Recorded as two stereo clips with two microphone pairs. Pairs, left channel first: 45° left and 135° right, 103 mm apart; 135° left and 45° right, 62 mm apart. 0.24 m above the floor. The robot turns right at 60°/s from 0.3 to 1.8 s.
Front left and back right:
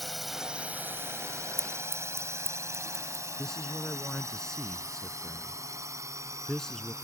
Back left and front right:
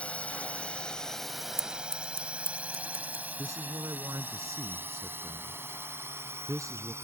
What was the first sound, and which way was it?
A drone, 135° left.